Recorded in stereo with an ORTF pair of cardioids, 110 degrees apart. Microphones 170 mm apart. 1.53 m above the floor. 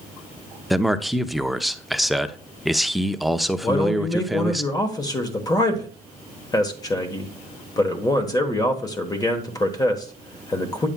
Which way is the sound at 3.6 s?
20° left.